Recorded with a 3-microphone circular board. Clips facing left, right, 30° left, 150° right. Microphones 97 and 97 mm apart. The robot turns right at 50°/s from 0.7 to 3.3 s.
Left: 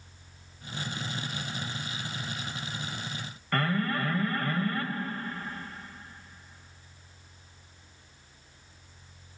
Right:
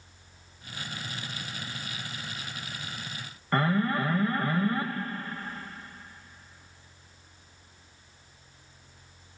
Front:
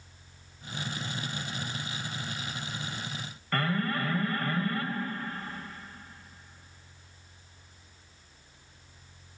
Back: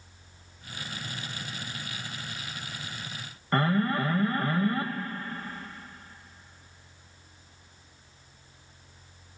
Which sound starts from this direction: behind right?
An alarm, at 3.5 s.